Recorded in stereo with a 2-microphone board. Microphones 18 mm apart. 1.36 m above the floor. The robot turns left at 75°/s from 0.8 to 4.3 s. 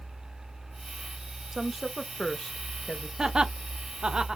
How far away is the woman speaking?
About 0.8 m.